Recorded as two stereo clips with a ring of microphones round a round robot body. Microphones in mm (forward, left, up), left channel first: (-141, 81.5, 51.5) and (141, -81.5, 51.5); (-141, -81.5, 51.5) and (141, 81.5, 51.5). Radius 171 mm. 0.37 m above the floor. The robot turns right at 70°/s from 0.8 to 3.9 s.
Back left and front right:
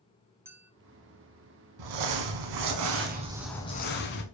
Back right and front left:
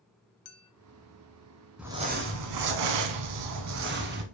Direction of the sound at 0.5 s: 115° right.